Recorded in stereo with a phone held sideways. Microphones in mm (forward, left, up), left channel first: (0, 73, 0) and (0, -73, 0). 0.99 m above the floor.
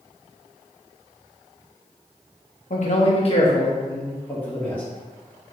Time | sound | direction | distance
2.7 | a man speaking | 60° left (ahead or behind) | 1.1 m